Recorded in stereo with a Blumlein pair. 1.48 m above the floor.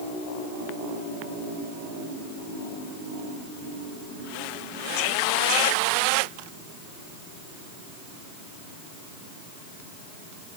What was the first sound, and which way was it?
Only background noise.